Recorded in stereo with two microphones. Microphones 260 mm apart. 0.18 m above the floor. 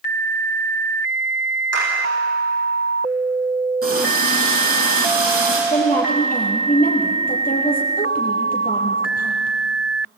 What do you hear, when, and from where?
1.7 s a clap: 65° right (ahead or behind), 8.5 m
3.8 s a running tap: 55° right (ahead or behind), 5 m
5.7 s a woman speaking: 30° left (ahead or behind), 4.5 m